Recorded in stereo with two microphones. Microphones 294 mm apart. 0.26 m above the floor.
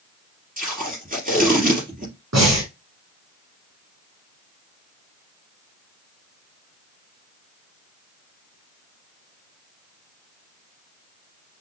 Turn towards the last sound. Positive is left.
turn(degrees=-60)  # may be behind; listen again after turning